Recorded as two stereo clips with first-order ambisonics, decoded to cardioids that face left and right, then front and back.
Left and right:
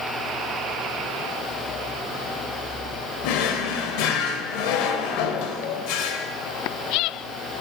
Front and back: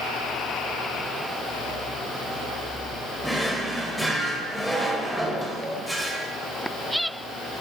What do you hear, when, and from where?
3.2 s a drawer: 90° left, 0.9 m